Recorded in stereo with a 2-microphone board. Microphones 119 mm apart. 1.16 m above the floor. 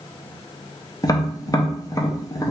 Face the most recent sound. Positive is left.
turn(degrees=30)  # may be behind; listen again after turning